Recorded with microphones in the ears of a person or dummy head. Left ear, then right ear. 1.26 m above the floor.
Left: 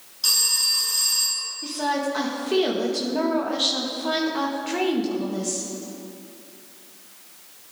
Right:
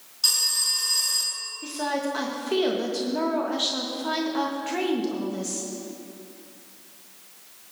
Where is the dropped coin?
I don't hear a dropped coin.